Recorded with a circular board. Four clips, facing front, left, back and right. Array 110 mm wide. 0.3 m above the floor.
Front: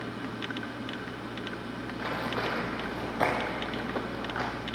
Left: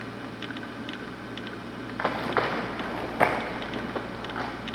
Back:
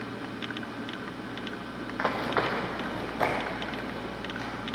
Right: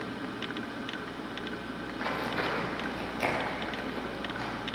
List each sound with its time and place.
2.0 s running footsteps: 130° left, 2.5 m; by 4.5 s 45° left, 2.5 m